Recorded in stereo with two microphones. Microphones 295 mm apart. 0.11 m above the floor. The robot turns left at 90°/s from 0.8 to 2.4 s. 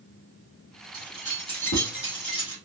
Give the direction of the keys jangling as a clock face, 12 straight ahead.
7 o'clock.